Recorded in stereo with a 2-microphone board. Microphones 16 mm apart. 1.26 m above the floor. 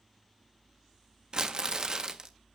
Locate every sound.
1.3 s crumpling: 40° right (ahead or behind), 0.8 m